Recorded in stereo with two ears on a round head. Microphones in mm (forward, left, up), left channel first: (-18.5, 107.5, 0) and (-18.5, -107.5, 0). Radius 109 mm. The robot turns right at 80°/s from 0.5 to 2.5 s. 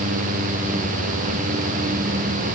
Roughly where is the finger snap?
I don't hear a finger snap.